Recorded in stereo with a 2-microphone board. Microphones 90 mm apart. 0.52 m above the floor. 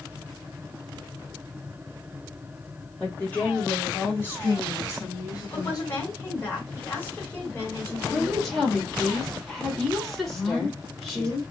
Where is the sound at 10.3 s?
5° left (ahead or behind), 2.5 m.